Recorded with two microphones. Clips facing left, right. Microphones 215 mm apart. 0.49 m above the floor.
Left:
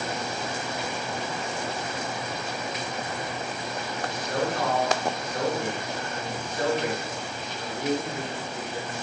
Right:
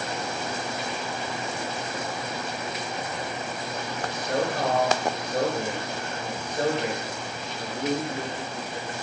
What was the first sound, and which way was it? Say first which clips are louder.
A man speaking: right 2 dB; 35° right (ahead or behind).